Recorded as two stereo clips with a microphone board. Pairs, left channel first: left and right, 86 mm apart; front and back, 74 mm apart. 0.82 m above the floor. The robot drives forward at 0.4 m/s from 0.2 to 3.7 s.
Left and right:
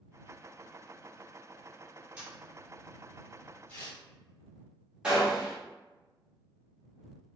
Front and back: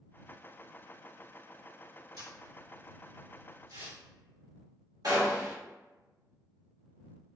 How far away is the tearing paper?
About 1.8 m.